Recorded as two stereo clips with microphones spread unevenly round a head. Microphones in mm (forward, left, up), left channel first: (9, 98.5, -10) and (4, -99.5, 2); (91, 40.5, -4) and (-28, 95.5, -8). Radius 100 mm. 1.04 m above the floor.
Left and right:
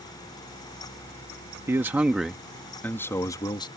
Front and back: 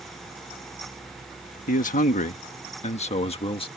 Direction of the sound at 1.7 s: 15° right.